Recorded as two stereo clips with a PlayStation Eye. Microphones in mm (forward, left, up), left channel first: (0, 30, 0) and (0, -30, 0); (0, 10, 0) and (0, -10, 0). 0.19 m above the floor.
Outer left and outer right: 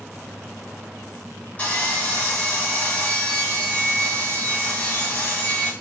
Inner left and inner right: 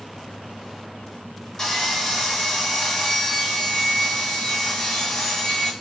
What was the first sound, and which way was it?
Sawing, 25° left (ahead or behind).